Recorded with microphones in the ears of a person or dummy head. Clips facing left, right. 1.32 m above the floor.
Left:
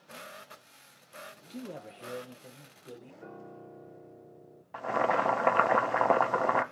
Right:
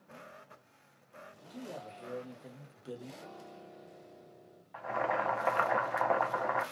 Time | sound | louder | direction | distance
1.5 | a man speaking | left 2 dB | 40° left (ahead or behind) | 0.7 m
3.2 | a piano | left 3 dB | 30° left (ahead or behind) | 0.6 m
4.7 | boiling | left 5 dB | 75° left (ahead or behind) | 0.6 m